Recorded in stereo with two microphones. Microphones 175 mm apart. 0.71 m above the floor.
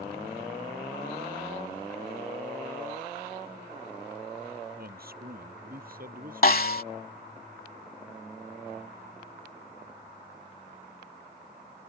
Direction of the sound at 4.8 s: 60° right (ahead or behind).